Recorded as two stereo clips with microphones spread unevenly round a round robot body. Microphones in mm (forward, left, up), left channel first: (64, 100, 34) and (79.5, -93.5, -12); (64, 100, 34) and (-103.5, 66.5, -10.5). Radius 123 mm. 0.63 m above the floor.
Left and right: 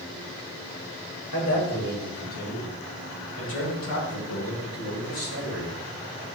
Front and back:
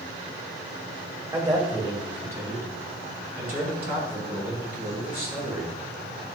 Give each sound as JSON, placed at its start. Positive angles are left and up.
{"t": 1.3, "sound": "a man speaking", "azimuth_deg": 120, "distance_m": 2.5}